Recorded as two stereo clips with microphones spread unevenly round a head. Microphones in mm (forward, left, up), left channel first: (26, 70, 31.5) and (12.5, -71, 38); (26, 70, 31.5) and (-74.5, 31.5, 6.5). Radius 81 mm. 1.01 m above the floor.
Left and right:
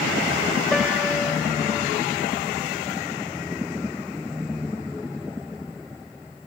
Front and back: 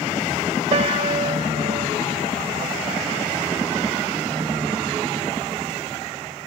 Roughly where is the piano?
Behind.